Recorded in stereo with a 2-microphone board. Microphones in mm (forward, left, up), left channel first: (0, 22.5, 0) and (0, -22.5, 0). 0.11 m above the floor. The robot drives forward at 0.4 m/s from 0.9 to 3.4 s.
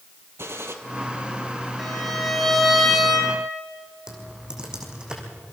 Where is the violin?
Centre (ahead or behind), 3 m.